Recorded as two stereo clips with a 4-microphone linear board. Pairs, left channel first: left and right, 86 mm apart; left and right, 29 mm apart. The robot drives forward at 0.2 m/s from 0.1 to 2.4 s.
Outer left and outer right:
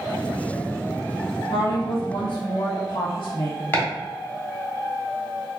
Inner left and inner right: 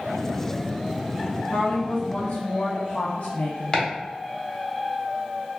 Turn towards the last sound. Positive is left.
turn(degrees=25)  # may be behind; listen again after turning